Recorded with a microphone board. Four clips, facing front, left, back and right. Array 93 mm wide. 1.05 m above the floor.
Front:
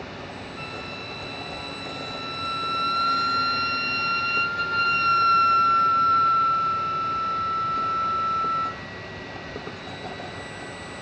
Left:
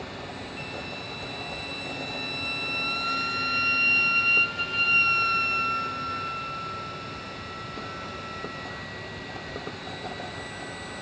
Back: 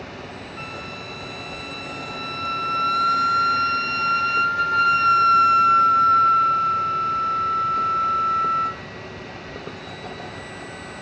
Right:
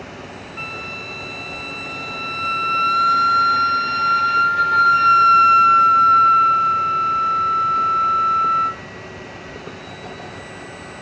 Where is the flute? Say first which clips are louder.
Right 6 dB, back 2 dB; 100° right, 0.8 m.